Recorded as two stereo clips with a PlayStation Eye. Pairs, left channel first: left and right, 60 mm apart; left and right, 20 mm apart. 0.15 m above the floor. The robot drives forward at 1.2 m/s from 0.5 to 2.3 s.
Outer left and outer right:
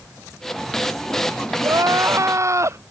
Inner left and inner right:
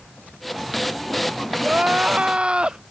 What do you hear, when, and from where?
1.6 s crying: 70° right (ahead or behind); by 2.8 s 55° right (ahead or behind)